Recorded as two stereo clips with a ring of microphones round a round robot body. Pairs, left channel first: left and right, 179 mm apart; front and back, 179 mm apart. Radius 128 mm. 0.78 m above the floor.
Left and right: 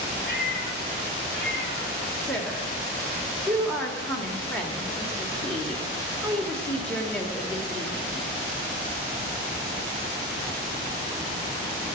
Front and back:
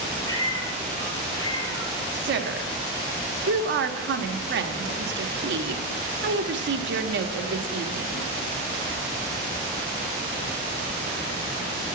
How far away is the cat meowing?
About 6 m.